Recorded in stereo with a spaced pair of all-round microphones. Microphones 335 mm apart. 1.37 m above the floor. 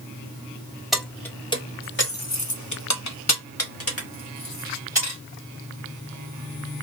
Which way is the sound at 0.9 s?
Centre (ahead or behind).